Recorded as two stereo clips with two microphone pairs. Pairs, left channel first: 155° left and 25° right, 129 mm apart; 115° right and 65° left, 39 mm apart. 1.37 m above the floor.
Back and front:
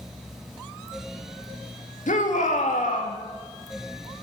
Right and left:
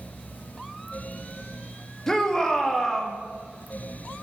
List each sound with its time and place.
2.1 s a shout: 165° left, 2.0 m